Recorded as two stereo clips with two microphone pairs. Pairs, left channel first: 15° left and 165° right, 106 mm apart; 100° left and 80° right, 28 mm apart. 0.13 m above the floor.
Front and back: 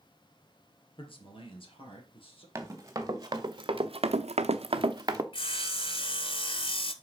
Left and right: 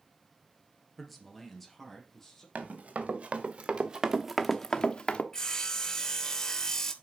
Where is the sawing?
35° left, 0.7 m.